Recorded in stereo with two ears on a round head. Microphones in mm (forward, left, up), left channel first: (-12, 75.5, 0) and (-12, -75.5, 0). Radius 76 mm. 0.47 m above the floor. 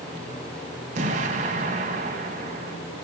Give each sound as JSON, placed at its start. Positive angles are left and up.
{"t": 0.9, "sound": "an explosion", "side_deg": -45, "distance_m": 1.2}